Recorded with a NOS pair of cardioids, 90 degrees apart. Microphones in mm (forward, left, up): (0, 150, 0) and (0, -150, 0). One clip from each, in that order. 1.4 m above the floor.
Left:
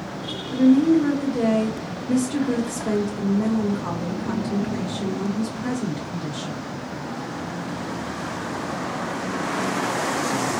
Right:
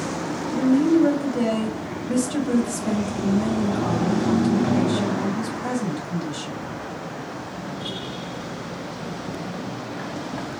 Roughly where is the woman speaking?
Ahead.